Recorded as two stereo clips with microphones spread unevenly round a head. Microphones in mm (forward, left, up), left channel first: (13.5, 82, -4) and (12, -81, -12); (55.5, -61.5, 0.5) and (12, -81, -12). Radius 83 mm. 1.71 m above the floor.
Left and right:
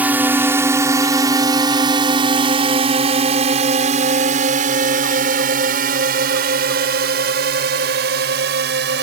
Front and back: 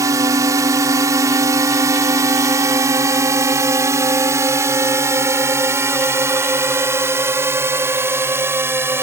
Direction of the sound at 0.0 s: 170° right.